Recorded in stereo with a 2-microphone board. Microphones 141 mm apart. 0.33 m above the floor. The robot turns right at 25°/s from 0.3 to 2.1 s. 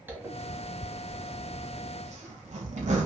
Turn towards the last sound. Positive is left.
turn(degrees=-55)  # may be behind; listen again after turning